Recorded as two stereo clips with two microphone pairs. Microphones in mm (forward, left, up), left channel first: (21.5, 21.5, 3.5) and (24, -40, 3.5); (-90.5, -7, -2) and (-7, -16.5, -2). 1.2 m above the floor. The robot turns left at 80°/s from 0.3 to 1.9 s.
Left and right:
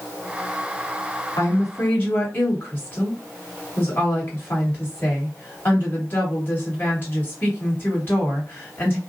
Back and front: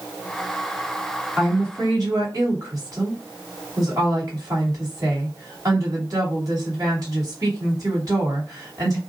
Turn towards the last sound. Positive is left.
turn(degrees=35)